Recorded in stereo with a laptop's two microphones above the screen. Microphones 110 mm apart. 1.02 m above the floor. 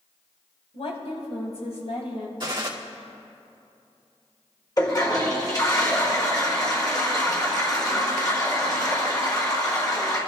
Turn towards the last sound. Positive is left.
turn(degrees=35)  # may be behind; listen again after turning